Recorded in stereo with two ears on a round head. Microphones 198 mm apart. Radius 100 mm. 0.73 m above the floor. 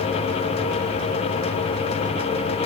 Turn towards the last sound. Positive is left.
No sound to turn to.